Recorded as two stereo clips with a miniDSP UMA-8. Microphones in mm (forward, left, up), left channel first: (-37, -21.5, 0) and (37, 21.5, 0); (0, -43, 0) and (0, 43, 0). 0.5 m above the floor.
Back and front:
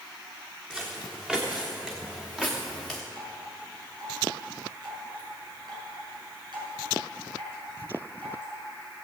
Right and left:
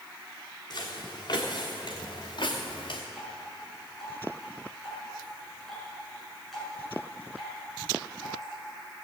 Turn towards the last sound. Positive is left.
turn(degrees=0)